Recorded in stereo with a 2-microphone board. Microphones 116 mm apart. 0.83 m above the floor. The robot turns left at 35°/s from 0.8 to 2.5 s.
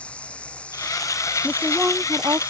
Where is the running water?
10° left; by 2.5 s 50° right.